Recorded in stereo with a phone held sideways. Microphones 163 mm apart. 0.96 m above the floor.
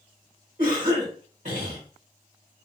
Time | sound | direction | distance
0.6 | a cough | 55° right (ahead or behind) | 1.1 m